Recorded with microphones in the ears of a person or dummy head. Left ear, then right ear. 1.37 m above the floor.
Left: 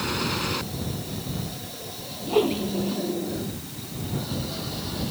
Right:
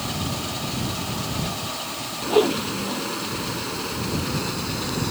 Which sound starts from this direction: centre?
A whoosh, at 2.3 s.